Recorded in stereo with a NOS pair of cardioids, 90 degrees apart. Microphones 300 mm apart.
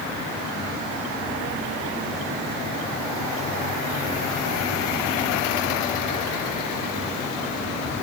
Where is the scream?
No scream in this recording.